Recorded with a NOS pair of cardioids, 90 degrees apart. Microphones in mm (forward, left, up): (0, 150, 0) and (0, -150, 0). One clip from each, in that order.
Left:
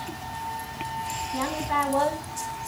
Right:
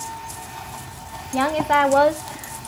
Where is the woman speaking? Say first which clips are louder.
Right 9 dB; 65° right, 1.6 m; by 2.7 s 40° right, 0.8 m.